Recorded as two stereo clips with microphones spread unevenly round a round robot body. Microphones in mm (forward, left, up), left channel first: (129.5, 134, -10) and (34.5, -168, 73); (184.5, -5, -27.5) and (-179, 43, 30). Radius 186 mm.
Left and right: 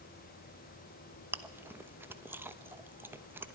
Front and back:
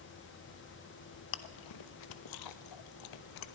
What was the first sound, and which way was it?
Chewing, 15° right.